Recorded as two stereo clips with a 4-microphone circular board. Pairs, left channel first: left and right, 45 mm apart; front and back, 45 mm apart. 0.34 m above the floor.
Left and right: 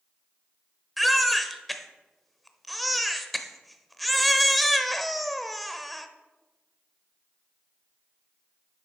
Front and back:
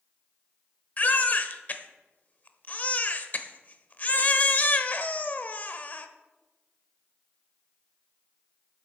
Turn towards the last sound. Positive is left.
turn(degrees=0)